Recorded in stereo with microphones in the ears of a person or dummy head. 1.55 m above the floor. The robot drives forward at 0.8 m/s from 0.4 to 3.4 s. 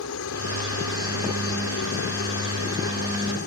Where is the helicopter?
75° left (ahead or behind); by 3.5 s 55° left (ahead or behind).